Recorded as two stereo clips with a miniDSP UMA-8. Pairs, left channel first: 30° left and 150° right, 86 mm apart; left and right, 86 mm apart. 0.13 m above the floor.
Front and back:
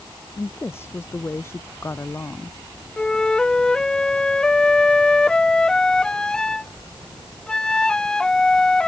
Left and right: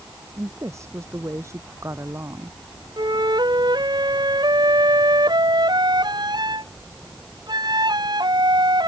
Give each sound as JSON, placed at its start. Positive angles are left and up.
{"t": 0.4, "sound": "a woman speaking", "azimuth_deg": -30}
{"t": 3.0, "sound": "a flute", "azimuth_deg": -50}